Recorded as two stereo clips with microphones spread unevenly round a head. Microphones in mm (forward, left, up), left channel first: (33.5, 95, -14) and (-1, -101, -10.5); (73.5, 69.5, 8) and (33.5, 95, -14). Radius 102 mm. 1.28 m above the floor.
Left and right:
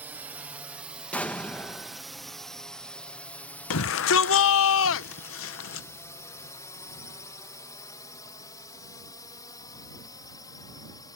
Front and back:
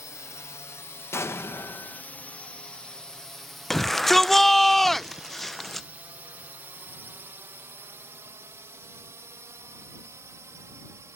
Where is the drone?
25° right; by 11.2 s 150° left.